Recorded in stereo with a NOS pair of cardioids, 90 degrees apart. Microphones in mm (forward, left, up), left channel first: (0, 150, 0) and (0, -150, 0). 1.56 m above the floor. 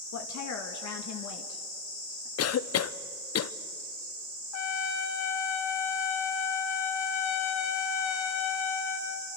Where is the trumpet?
60° left, 1.8 m.